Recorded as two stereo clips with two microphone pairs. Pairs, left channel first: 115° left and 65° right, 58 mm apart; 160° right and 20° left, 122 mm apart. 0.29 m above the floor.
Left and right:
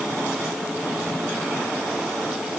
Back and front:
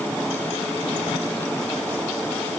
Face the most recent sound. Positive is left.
No sound to turn to.